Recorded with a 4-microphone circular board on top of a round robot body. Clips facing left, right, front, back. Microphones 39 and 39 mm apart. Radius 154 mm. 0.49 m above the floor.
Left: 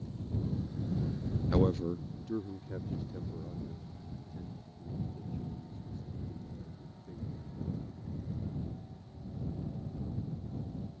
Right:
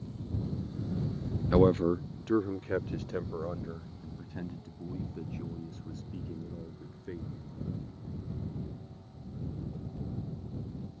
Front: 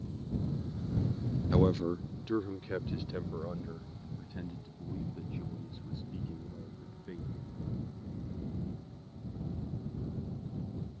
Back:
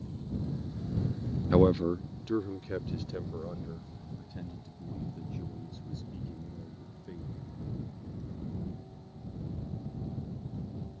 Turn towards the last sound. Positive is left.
turn(degrees=-70)